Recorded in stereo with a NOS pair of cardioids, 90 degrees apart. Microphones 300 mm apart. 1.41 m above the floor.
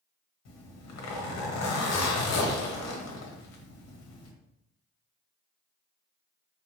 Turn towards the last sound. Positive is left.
turn(degrees=65)